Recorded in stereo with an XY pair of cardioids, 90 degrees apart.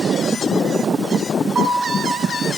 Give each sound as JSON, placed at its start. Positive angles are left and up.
{"t": 1.6, "sound": "a piano", "azimuth_deg": -45, "distance_m": 9.0}